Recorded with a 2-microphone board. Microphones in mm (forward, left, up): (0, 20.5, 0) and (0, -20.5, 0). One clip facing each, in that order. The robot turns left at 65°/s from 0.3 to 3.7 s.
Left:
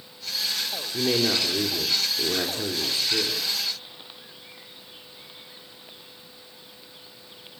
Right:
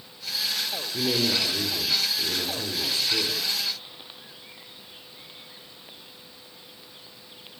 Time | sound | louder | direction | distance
0.9 | a man speaking | left 2 dB | 170° left | 3.5 m